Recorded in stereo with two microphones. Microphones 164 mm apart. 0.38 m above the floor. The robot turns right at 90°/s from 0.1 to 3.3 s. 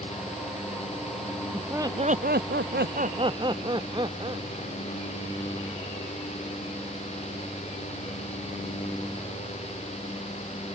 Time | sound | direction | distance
1.5 | laughter | 175° left | ?